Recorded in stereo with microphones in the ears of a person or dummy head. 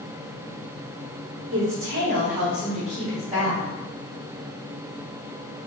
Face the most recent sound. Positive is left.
turn(degrees=-15)  # may be behind; listen again after turning